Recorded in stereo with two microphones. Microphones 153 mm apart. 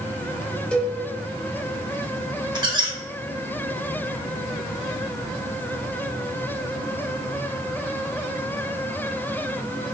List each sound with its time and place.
0.7 s a cowbell: 5° left (ahead or behind), 0.6 m
2.5 s a squeak: 30° right (ahead or behind), 0.8 m